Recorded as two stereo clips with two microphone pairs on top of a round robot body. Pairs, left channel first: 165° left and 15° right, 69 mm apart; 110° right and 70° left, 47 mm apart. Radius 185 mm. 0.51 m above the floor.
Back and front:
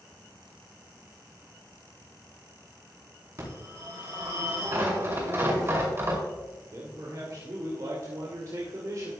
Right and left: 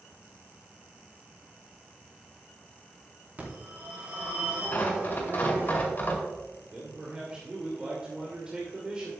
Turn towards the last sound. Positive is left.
turn(degrees=0)